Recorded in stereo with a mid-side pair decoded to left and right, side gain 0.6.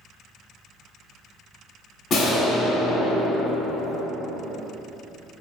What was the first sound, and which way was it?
An explosion, 45° left.